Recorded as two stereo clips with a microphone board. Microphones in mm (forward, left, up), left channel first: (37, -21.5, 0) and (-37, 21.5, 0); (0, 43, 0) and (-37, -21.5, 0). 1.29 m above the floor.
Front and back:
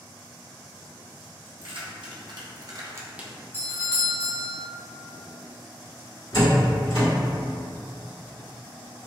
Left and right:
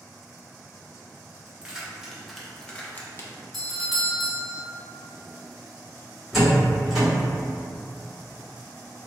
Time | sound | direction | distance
1.5 | keys jangling | 165° left | 1.1 m
3.5 | a doorbell | 25° right | 0.7 m
6.3 | a door slam | 35° right | 1.9 m